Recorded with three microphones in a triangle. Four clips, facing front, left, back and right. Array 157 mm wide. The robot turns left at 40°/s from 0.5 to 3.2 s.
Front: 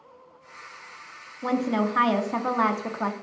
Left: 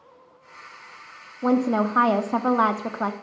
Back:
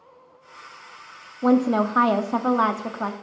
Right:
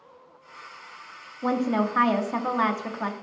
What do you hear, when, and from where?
1.4 s a woman speaking: 160° left, 0.7 m; by 3.1 s 90° left, 0.7 m